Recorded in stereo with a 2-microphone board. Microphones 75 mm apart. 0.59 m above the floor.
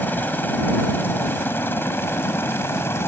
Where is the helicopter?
25° left (ahead or behind); by 3.1 s 30° left (ahead or behind).